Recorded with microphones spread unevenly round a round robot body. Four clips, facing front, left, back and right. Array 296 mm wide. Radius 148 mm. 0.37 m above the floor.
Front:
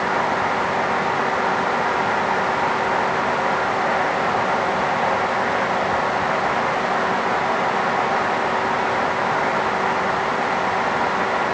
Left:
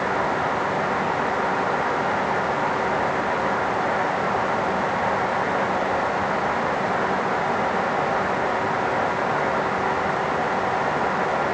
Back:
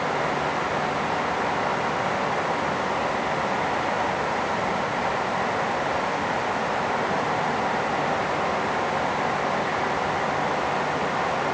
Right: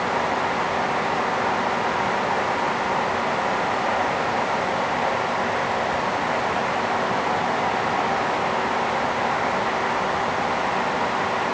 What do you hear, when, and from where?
Only background noise.